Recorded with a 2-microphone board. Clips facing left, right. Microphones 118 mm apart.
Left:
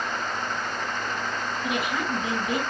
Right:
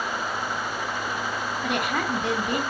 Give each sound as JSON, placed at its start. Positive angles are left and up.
{"t": 1.6, "sound": "a woman speaking", "side_deg": -60, "distance_m": 1.8}